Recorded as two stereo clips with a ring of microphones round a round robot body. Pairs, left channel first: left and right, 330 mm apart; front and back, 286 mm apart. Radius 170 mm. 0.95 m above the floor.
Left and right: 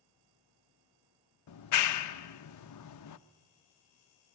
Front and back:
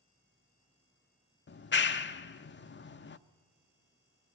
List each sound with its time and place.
1.5 s a clap: 55° left, 0.7 m